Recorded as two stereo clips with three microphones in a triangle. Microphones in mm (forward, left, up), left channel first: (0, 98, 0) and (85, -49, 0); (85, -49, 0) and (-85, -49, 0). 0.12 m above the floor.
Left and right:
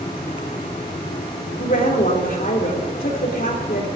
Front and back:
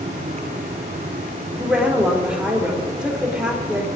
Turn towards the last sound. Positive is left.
turn(degrees=95)